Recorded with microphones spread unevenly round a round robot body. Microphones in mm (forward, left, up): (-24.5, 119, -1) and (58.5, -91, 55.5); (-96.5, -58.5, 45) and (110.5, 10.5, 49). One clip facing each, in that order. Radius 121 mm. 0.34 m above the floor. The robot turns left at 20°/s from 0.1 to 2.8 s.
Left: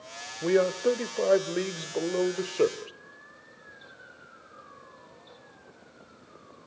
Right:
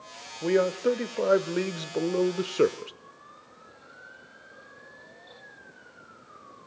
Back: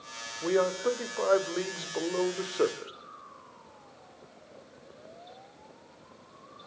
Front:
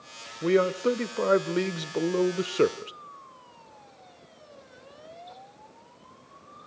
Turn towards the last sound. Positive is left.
turn(degrees=0)